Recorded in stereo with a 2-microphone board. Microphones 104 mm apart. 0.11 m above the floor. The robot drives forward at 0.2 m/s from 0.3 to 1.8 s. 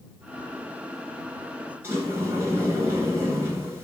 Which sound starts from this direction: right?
A sliding door, at 1.8 s.